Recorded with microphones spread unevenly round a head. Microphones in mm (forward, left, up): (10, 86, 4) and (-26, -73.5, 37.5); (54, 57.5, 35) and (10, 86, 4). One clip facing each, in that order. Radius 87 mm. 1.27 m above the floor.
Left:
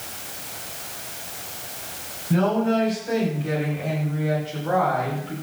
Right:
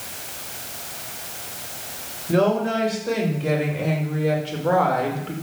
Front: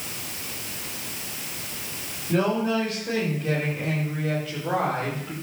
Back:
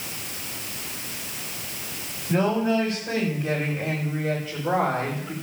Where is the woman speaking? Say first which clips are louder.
Right 1 dB, back 1 dB; 120° right, 6.5 m; by 5.3 s 125° right, 5 m.